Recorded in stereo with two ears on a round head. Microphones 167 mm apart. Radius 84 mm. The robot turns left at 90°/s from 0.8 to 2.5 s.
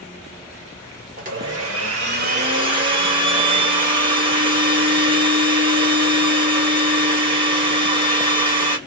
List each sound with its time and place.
1.2 s a blender: 35° right, 1.2 m; by 8.8 s 150° right, 1.2 m